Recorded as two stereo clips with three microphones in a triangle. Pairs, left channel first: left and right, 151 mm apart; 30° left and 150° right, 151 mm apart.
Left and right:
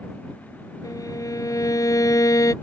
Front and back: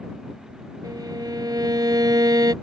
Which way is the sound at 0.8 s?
155° left.